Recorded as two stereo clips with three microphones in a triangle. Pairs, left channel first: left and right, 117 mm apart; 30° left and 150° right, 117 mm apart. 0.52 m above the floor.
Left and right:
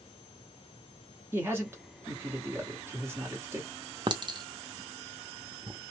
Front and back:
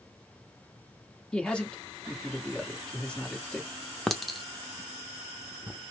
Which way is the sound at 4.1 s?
60° right.